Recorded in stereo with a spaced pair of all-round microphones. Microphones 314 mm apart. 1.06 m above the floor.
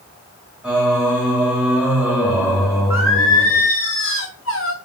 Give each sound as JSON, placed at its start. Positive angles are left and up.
{"t": 0.6, "sound": "singing", "side_deg": -5, "distance_m": 1.9}
{"t": 2.9, "sound": "singing", "side_deg": 45, "distance_m": 1.1}